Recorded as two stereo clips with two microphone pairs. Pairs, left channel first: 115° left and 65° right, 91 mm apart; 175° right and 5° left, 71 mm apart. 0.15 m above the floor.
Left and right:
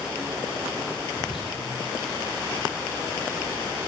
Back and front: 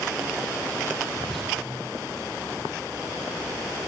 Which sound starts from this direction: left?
Whispering, at 1.1 s.